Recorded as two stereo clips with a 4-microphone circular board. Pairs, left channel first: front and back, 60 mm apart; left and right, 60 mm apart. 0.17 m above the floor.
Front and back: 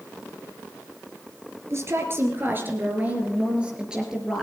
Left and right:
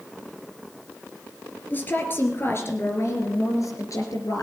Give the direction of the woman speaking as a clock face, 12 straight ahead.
7 o'clock.